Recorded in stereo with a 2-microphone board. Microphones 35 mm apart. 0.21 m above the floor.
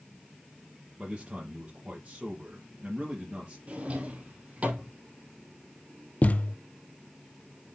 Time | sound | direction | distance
1.0 | a man speaking | 40° right (ahead or behind) | 3 m
3.7 | a drawer | 40° right (ahead or behind) | 2.5 m
6.2 | a thud | 45° left (ahead or behind) | 0.7 m